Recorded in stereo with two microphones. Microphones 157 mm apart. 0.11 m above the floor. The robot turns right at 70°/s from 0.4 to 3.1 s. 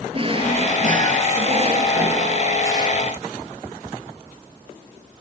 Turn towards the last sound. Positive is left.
turn(degrees=55)